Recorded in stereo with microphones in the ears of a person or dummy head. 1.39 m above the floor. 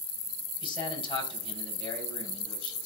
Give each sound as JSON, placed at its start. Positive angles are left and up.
{"t": 0.6, "sound": "a man speaking", "side_deg": 30, "distance_m": 5.5}